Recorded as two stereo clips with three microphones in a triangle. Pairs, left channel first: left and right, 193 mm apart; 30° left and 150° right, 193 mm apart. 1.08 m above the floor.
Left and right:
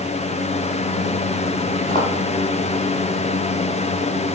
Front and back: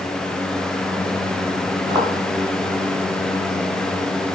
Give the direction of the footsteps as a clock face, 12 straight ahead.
7 o'clock.